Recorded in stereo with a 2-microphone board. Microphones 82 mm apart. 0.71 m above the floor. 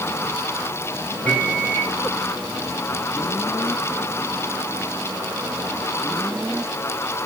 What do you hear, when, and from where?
1.2 s a microwave: 15° left (ahead or behind), 2.5 m